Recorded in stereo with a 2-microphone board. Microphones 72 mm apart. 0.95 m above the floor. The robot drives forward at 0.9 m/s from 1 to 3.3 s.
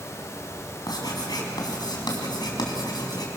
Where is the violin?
No violin in this recording.